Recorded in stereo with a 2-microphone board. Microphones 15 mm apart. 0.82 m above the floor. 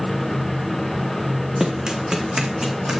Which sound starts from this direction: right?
Running footsteps, at 1.6 s.